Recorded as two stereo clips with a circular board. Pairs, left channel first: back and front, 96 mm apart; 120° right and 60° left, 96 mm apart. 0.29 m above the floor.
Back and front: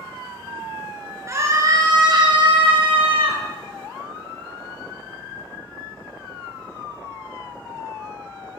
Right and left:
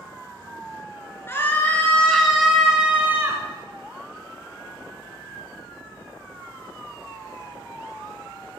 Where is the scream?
55° right, 3 m; by 3.4 s straight ahead, 2.5 m.